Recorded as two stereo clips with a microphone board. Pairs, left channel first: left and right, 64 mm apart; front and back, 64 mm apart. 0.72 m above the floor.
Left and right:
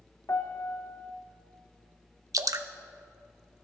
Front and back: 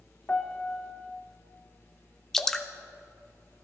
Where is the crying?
No crying in this recording.